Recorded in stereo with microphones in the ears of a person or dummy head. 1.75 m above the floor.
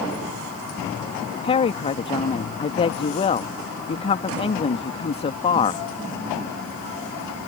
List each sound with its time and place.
1.4 s a woman speaking: 30° left (ahead or behind)